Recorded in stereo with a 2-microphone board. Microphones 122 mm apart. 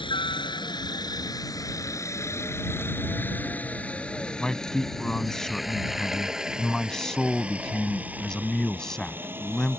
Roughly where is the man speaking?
Centre.